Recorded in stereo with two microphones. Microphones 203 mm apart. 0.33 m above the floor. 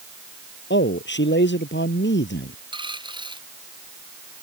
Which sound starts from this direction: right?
A dropped coin, at 2.7 s.